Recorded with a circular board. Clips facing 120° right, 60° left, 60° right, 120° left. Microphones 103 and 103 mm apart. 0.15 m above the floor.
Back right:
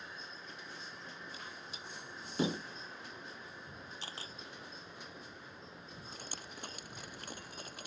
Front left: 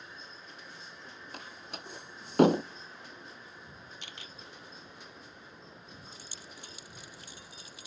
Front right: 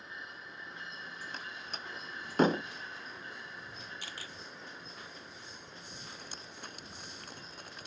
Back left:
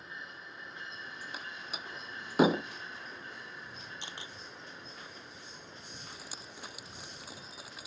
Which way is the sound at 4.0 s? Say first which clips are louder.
Back right 2 dB, back left 1 dB; 175° right.